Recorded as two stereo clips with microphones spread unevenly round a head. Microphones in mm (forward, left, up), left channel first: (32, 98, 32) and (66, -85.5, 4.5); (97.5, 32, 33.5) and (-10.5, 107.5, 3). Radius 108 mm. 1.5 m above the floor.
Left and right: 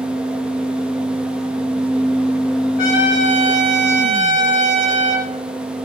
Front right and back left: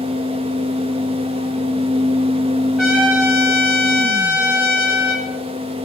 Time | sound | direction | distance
0.0 | a fan | straight behind | 0.8 m
2.8 | a trumpet | 60° left | 5.5 m